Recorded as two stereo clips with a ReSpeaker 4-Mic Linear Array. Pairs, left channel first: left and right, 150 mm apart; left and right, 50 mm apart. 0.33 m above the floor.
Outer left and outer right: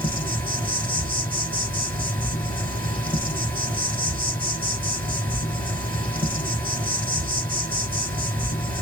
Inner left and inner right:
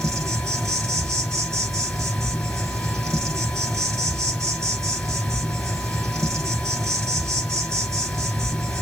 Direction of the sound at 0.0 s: 10° left (ahead or behind).